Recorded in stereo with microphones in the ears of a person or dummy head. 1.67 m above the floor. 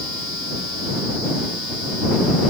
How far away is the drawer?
No drawer in this recording.